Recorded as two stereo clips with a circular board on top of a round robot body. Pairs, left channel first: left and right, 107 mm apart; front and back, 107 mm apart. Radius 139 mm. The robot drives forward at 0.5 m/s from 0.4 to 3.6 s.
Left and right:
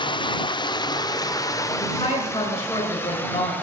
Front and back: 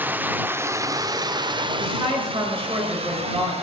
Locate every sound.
0.0 s running water: 115° left, 0.9 m; by 3.6 s 160° left, 2 m
1.8 s a woman speaking: 140° left, 6.5 m; by 3.5 s 145° left, 7 m